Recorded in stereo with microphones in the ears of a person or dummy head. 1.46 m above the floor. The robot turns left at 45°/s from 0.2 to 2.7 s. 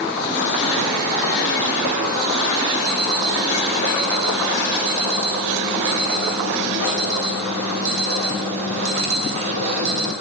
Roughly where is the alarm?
Right.